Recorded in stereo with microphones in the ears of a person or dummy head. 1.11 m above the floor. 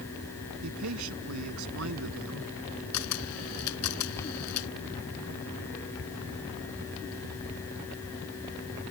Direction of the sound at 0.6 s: 75° right (ahead or behind).